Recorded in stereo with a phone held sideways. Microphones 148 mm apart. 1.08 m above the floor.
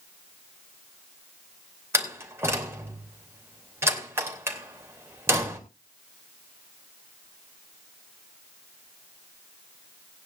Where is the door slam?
20° right (ahead or behind), 3 m.